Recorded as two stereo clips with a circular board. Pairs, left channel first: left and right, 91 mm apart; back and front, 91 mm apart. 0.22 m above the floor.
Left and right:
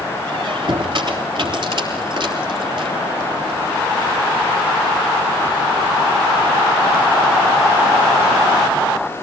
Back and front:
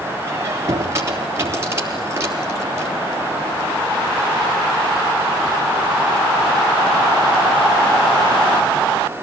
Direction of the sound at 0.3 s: 60° right.